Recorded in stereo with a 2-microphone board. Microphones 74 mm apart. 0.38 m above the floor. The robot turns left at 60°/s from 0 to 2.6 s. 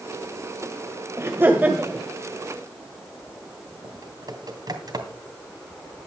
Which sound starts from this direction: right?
Typing on a keyboard, at 3.8 s.